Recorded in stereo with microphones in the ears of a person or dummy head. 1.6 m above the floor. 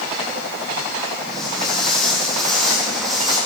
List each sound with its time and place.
1.3 s footsteps: 5° left (ahead or behind), 4 m